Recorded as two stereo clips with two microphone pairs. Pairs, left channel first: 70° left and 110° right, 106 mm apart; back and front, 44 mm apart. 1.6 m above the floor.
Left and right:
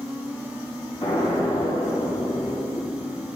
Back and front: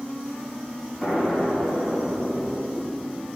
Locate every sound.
1.0 s an explosion: 110° left, 4 m